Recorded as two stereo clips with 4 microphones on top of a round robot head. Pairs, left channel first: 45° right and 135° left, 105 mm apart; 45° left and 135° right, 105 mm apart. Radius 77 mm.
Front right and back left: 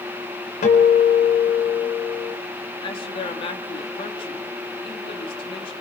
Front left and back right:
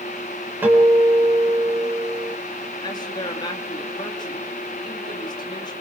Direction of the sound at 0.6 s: 60° right.